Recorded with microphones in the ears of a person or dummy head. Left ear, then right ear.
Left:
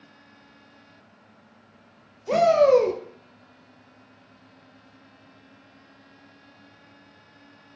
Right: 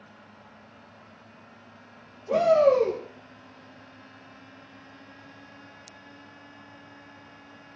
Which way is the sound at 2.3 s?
70° left (ahead or behind).